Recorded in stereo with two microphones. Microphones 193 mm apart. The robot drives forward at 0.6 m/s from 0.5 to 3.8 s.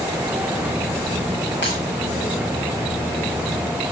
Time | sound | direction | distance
1.6 | breaking glass | 70° left (ahead or behind) | 6 m